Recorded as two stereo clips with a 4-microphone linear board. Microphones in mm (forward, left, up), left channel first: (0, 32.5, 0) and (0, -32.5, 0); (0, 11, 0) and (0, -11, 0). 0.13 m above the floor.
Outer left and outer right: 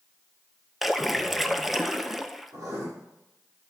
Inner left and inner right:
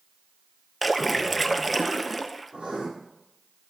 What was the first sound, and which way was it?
A splash, 5° right (ahead or behind).